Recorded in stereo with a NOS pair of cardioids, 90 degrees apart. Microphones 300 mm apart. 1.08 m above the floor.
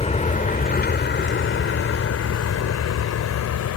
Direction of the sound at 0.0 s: 20° left.